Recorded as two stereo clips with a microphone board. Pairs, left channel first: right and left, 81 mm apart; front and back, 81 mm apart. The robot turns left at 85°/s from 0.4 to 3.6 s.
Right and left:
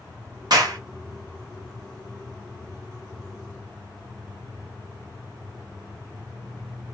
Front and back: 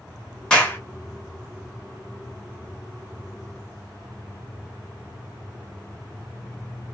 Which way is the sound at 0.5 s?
80° left.